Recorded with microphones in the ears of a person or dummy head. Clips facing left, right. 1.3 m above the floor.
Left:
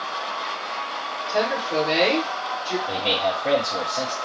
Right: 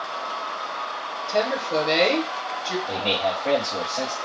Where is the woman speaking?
15° right (ahead or behind), 0.8 m.